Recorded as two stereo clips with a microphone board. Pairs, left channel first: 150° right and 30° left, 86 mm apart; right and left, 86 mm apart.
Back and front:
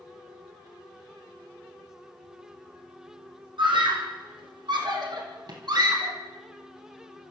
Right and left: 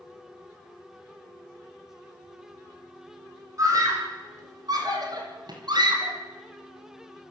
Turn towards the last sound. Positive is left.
turn(degrees=60)